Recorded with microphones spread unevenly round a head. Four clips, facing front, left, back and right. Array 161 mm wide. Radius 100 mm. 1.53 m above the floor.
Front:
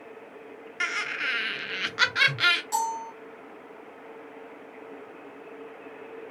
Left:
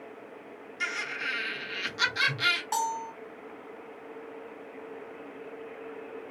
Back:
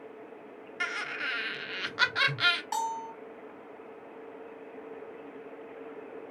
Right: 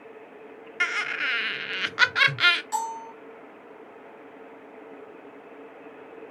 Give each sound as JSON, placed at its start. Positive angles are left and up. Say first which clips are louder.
{"t": 0.8, "sound": "laughter", "louder": "right 6 dB, front 3 dB", "azimuth_deg": -55, "distance_m": 1.4}
{"t": 2.7, "sound": "a bell", "louder": "even, front 4 dB", "azimuth_deg": 155, "distance_m": 0.9}